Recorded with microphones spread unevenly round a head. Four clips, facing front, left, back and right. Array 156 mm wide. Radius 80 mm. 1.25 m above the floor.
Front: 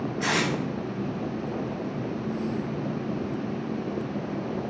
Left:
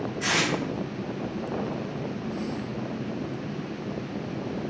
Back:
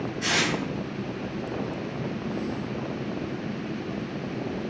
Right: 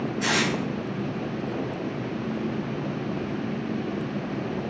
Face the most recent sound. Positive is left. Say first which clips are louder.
# right 2 dB, front 2 dB
turn(degrees=-20)